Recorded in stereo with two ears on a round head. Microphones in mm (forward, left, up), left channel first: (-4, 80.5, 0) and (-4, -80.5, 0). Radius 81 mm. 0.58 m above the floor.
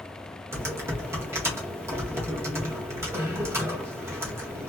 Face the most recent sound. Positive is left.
turn(degrees=-15)  # may be behind; listen again after turning